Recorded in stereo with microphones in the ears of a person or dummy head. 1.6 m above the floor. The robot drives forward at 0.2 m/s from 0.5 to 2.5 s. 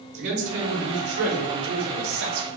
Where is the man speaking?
60° right (ahead or behind), 1.6 m; by 2.5 s 50° right (ahead or behind), 1.9 m.